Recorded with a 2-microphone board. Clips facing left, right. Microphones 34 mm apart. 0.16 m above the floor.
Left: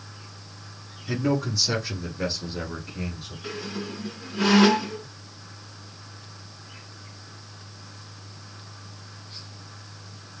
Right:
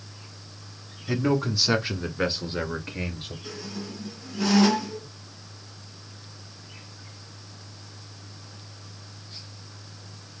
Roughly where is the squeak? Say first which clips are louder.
Left 6 dB; left.